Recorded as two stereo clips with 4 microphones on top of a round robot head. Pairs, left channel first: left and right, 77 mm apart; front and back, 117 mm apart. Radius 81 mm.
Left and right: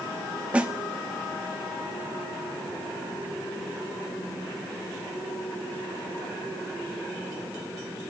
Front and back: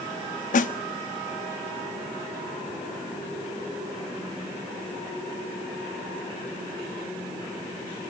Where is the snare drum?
10° right, 1.1 m.